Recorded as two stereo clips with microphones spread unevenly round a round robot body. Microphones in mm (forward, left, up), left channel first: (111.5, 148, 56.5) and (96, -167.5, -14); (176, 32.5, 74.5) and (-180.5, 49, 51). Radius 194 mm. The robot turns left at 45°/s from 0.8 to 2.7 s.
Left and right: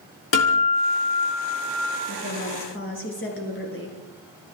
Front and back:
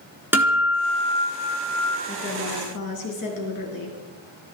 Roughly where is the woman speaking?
Ahead left.